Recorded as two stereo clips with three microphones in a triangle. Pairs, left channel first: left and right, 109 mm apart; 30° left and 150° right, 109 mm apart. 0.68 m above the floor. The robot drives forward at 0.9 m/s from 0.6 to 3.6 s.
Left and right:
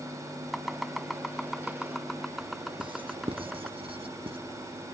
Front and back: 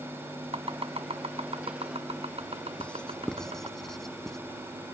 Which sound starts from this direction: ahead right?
Writing, at 2.8 s.